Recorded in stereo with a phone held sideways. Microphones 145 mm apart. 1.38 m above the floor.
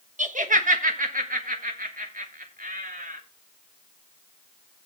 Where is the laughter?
60° right (ahead or behind), 1.3 m; by 3.2 s 80° right, 3.5 m.